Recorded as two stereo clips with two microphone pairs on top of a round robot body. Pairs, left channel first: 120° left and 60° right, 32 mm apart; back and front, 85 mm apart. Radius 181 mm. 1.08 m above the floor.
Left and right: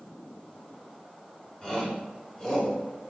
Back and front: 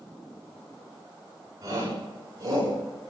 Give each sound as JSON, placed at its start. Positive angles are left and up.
{"t": 1.6, "sound": "a shout", "azimuth_deg": 50, "distance_m": 5.5}